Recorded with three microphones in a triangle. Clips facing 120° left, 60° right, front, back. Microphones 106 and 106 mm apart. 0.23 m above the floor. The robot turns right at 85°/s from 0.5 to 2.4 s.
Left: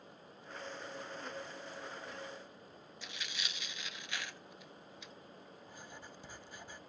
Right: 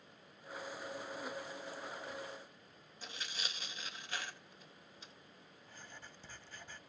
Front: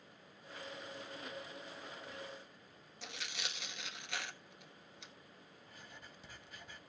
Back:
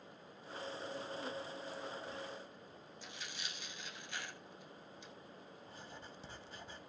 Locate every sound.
3.0 s tearing paper: 10° right, 1.0 m
5.7 s writing: straight behind, 0.5 m